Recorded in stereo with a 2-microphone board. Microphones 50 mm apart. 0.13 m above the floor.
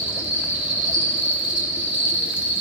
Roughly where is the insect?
Right.